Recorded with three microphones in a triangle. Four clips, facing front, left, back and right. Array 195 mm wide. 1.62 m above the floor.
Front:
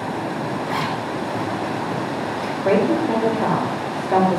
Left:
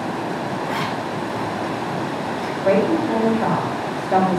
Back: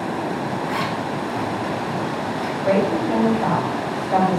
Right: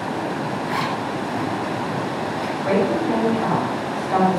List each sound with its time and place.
0.7 s a zipper: 10° right, 6.5 m
2.6 s a woman speaking: 25° left, 5 m